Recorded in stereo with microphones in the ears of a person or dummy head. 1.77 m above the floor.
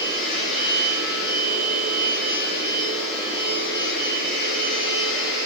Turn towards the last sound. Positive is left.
turn(degrees=60)  # may be behind; listen again after turning